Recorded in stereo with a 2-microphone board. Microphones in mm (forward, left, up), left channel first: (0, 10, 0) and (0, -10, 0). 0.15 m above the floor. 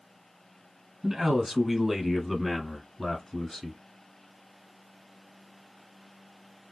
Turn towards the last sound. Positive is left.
turn(degrees=20)  # may be behind; listen again after turning